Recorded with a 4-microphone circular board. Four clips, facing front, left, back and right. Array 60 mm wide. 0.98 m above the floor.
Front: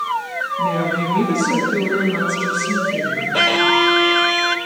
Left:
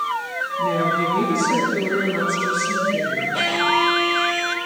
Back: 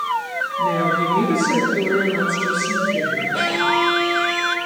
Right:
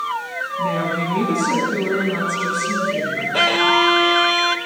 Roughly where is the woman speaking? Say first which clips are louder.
Left 2 dB, back 2 dB; ahead right.